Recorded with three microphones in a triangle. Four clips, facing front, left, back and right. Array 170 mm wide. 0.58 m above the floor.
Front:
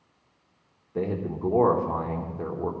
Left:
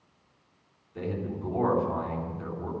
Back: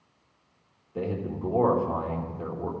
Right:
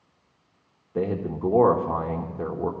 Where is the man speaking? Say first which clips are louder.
Right 7 dB, front 2 dB; 70° right, 1.2 m.